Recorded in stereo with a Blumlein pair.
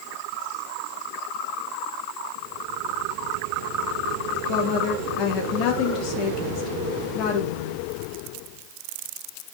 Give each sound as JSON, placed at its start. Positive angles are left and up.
{"t": 4.5, "sound": "a woman speaking", "azimuth_deg": 40, "distance_m": 2.0}